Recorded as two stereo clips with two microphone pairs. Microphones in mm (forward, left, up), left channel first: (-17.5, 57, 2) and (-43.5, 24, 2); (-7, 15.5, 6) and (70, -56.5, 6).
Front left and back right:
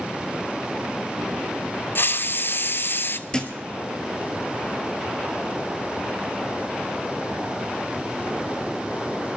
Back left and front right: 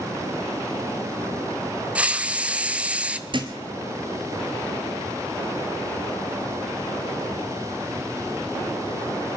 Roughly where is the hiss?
Ahead left.